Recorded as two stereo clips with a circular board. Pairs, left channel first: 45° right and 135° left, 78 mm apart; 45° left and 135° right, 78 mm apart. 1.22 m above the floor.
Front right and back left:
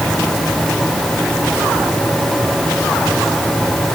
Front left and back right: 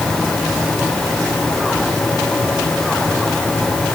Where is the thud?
I don't hear a thud.